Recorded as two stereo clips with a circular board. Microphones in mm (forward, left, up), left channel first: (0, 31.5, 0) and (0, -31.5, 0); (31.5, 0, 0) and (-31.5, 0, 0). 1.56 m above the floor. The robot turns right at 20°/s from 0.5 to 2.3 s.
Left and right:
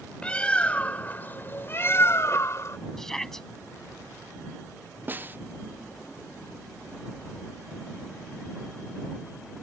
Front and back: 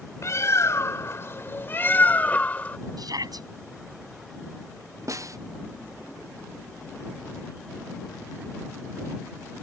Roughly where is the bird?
Ahead left.